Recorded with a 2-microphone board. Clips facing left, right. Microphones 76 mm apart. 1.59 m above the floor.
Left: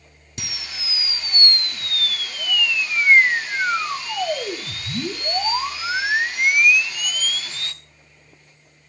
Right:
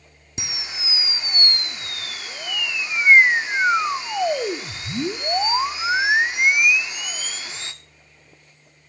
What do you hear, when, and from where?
0.4 s a camera shutter: 20° right (ahead or behind), 1.2 m